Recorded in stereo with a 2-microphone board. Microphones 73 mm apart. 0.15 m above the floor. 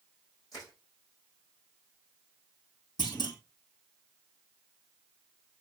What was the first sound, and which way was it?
Crushing, 50° left (ahead or behind).